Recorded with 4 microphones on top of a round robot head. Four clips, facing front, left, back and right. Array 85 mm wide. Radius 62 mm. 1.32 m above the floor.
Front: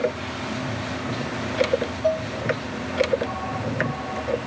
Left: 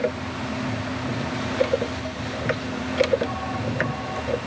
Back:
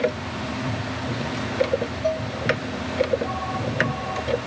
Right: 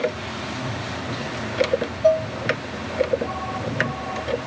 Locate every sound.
2.0 s dishes clattering: 85° right